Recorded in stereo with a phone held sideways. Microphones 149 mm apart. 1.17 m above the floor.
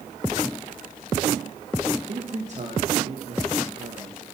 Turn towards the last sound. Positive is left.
turn(degrees=-50)  # may be behind; listen again after turning